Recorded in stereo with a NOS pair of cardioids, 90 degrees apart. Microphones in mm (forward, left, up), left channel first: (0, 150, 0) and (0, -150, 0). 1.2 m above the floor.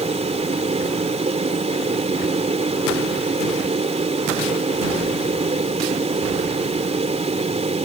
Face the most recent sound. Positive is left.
turn(degrees=-20)